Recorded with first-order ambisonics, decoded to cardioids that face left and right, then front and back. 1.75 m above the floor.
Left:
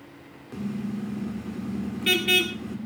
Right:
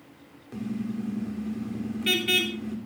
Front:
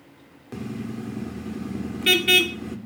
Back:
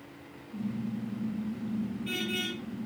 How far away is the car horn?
About 2.5 m.